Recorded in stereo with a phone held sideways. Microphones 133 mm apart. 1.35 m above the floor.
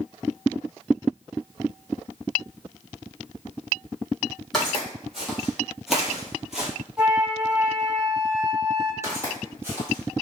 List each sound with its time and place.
4.5 s footsteps: centre (ahead or behind), 1.9 m; by 6.7 s 5° right (ahead or behind), 1.3 m
7.0 s a flute: 5° right (ahead or behind), 1.0 m
9.0 s footsteps: 20° right (ahead or behind), 1.8 m; by 10.2 s 15° right (ahead or behind), 1.4 m